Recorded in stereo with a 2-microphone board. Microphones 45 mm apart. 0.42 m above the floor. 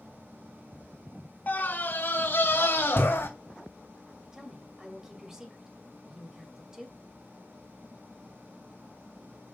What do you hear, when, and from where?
1.5 s a scream: 40° left (ahead or behind), 1.6 m; by 3.3 s 60° left (ahead or behind), 3 m
4.3 s a woman speaking: 10° right (ahead or behind), 2.5 m